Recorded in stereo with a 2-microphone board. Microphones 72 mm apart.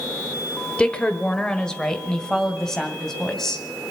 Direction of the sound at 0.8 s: 15° left (ahead or behind).